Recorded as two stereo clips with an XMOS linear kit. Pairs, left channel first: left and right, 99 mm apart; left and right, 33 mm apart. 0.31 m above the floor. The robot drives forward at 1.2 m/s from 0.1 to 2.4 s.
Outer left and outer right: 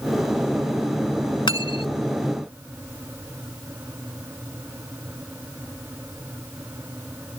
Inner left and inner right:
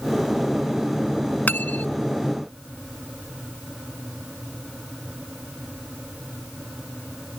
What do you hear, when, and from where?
1.5 s cutlery clinking: 55° left (ahead or behind); by 2.0 s 70° left (ahead or behind)